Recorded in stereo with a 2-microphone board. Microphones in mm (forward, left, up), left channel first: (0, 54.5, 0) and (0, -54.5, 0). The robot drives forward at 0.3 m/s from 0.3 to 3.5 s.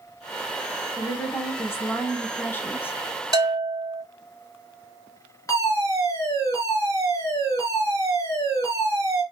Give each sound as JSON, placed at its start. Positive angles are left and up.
{"t": 1.0, "sound": "a woman speaking", "side_deg": 20, "distance_m": 1.2}
{"t": 3.3, "sound": "a bell", "side_deg": -35, "distance_m": 2.0}
{"t": 5.5, "sound": "a fire alarm", "side_deg": 30, "distance_m": 3.5}